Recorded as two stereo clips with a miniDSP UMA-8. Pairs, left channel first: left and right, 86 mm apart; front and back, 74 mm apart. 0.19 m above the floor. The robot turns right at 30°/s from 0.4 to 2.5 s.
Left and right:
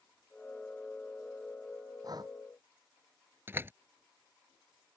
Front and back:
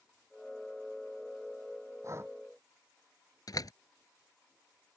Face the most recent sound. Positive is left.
turn(degrees=-30)